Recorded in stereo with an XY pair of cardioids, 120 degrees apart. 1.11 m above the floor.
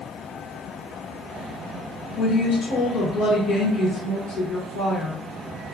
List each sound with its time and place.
2.2 s a woman speaking: 65° left, 0.8 m